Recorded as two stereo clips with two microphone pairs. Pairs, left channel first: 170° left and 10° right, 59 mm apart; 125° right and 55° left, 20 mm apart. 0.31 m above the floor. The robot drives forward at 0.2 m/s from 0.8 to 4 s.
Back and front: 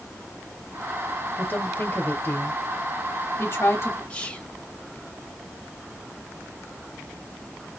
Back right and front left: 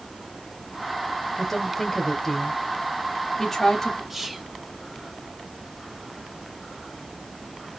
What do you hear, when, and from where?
1.4 s a woman speaking: 170° left, 0.9 m; by 4.0 s 175° left, 1.3 m
4.1 s whispering: 130° left, 1.1 m